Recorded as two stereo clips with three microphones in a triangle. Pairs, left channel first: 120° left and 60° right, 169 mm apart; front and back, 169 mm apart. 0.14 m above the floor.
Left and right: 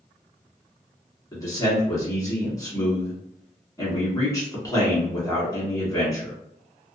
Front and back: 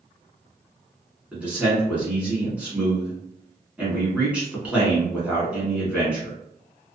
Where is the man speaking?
110° left, 1.3 m.